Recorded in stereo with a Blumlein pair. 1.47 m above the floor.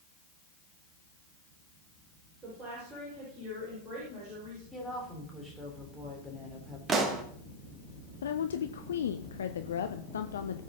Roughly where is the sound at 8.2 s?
Ahead left.